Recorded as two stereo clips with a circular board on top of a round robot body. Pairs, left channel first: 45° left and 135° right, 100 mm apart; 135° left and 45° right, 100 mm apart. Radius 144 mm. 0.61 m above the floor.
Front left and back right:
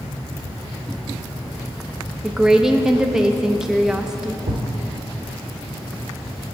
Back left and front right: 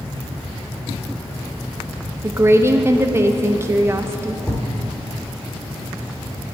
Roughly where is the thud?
Behind right.